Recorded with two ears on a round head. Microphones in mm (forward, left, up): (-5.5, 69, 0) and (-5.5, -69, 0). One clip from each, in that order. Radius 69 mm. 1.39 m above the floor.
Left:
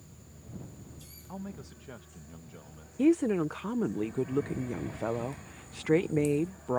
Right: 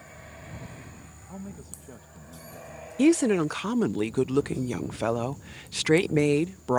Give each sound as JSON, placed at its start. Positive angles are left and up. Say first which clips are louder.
{"t": 1.3, "sound": "a man speaking", "louder": "even", "side_deg": 40}
{"t": 3.0, "sound": "a woman speaking", "louder": "right 4 dB", "side_deg": -80}